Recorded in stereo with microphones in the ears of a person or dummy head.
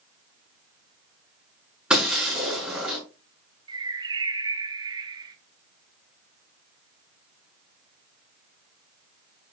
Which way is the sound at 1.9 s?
15° right (ahead or behind).